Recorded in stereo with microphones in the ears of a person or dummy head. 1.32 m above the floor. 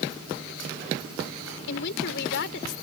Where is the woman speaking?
65° left (ahead or behind).